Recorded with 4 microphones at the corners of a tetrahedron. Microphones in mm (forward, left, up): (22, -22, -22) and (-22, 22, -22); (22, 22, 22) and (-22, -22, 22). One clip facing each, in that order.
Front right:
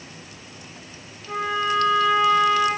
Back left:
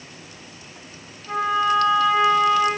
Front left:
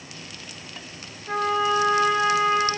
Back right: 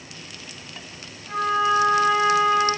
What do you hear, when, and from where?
1.3 s a trumpet: 55° left, 3 m